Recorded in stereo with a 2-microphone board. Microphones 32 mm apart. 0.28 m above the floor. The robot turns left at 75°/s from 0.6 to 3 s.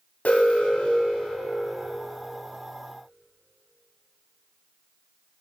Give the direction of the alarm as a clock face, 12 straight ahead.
9 o'clock.